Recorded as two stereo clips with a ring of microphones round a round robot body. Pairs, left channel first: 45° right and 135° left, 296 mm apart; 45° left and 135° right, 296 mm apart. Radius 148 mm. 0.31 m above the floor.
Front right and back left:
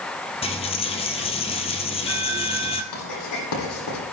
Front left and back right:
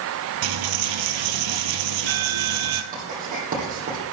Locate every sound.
0.4 s a dropped coin: 115° right, 1.8 m
2.9 s writing: 70° right, 10 m